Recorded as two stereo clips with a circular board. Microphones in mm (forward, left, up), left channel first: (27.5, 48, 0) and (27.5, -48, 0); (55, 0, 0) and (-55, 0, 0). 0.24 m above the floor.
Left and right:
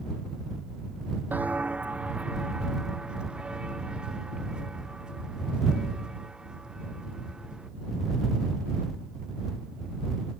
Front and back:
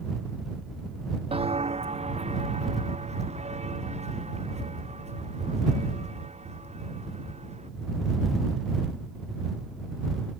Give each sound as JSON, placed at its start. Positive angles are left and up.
{"t": 1.3, "sound": "footsteps", "azimuth_deg": -160}